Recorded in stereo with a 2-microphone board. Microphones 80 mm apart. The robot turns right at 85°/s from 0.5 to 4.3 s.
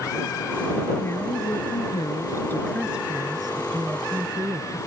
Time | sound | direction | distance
1.0 | a woman speaking | 25° left | ?